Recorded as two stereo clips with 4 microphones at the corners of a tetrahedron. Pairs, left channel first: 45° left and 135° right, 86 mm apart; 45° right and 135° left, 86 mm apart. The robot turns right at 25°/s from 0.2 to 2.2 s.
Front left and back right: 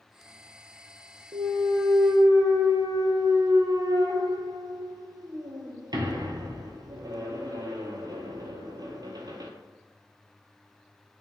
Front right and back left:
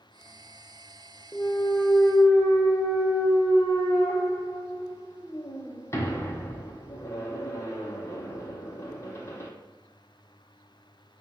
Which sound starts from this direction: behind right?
A clunk, at 1.3 s.